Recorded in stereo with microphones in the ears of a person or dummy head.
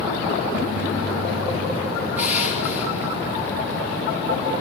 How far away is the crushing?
About 5 m.